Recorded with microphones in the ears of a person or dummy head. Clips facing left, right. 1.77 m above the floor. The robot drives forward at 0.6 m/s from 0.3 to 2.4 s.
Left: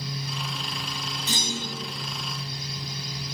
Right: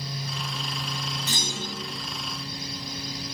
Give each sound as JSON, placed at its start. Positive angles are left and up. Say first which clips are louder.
{"t": 1.3, "sound": "a clunk", "louder": "left 1 dB", "side_deg": 30, "distance_m": 2.0}